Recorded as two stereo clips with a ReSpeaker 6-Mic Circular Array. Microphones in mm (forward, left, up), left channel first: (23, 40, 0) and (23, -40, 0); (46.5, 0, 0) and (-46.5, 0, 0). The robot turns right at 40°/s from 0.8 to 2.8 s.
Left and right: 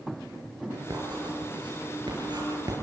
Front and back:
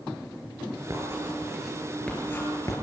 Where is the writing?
125° right, 6.5 m; by 2.7 s 50° right, 6.5 m.